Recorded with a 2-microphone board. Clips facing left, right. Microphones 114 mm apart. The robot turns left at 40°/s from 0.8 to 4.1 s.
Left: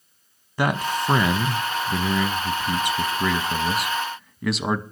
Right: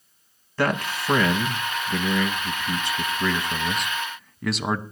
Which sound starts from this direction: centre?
A man speaking, at 0.6 s.